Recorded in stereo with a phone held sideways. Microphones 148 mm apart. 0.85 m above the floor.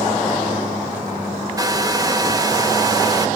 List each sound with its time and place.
1.6 s a hair dryer: 25° right (ahead or behind), 1.2 m